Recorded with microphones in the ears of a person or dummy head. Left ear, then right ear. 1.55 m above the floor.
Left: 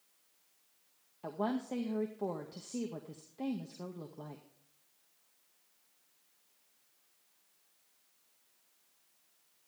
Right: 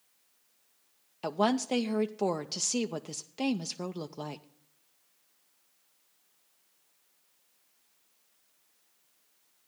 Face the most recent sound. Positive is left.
turn(degrees=-70)  # may be behind; listen again after turning